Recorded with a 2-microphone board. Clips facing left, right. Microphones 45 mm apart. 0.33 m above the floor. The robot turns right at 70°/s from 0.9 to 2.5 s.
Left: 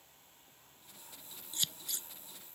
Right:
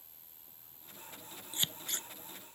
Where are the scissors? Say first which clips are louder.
Right 3 dB; 25° right (ahead or behind); by 2.1 s 65° right (ahead or behind).